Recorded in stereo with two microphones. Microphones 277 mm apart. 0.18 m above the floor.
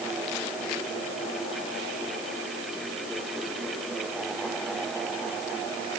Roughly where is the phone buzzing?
I don't hear a phone buzzing.